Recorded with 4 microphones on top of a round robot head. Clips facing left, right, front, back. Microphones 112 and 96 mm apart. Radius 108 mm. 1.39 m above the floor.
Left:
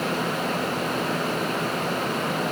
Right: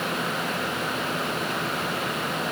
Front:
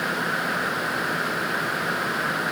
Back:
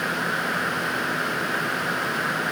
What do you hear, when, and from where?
Only background noise.